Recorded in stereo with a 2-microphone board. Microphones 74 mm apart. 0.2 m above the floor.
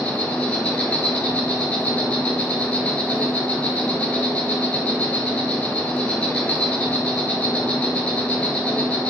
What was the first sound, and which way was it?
An insect, 15° left (ahead or behind).